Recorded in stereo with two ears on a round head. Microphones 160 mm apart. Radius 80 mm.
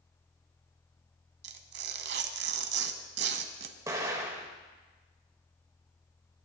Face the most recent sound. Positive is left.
turn(degrees=-20)  # may be behind; listen again after turning